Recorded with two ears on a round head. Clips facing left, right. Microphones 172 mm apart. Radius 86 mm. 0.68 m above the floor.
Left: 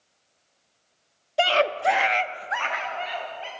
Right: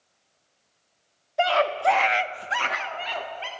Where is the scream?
40° left (ahead or behind), 1.2 m; by 3.5 s 65° right (ahead or behind), 1.7 m.